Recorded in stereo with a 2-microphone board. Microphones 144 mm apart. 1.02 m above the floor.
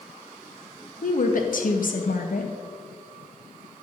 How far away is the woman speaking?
About 0.8 m.